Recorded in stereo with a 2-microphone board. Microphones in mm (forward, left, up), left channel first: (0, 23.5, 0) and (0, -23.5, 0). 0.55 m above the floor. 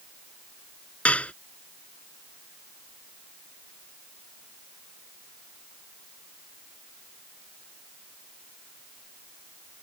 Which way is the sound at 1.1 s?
30° left (ahead or behind).